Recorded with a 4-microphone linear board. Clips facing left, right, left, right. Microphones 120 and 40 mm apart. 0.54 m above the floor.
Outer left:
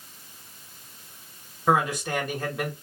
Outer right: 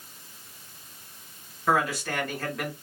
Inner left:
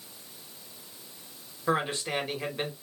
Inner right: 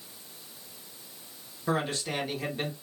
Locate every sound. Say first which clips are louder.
1.7 s a man speaking: outer left 2 dB, inner left 2 dB; 15° left (ahead or behind), 1.6 m